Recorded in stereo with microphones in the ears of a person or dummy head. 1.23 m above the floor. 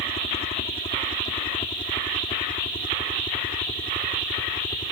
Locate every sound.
0.0 s a helicopter: 35° left (ahead or behind); by 4.9 s 25° left (ahead or behind)